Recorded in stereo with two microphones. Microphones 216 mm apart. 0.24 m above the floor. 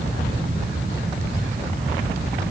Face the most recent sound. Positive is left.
No sound to turn to.